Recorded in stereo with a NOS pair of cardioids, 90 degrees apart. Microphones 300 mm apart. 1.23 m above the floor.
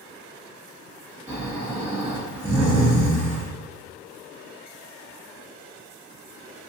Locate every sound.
1.3 s snoring: 10° right, 1.7 m